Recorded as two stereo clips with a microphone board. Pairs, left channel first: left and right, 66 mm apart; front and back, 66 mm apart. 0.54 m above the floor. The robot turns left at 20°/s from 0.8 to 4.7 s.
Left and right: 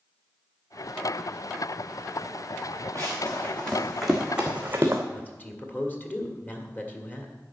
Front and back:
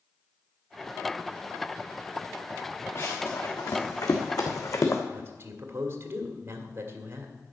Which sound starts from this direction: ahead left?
Running footsteps, at 3.0 s.